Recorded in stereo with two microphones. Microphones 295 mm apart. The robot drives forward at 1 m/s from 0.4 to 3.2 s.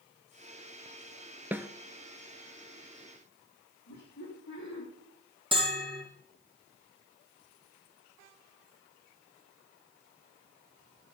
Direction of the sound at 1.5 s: 5° right (ahead or behind).